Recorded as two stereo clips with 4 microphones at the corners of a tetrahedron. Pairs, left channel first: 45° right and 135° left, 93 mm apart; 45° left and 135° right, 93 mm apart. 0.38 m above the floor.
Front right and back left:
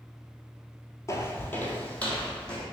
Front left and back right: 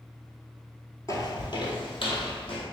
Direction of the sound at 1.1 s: 5° left.